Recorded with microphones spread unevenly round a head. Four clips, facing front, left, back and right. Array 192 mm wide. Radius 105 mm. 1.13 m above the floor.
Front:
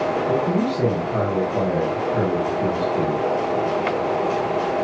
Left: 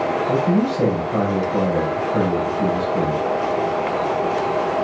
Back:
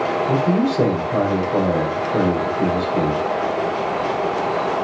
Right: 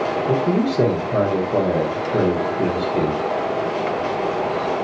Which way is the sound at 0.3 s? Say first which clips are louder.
Even, back 2 dB; 115° right.